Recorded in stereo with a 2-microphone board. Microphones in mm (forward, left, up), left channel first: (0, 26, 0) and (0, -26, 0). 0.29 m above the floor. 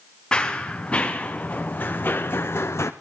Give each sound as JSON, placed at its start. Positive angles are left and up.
{"t": 0.3, "sound": "running footsteps", "side_deg": 20, "distance_m": 2.0}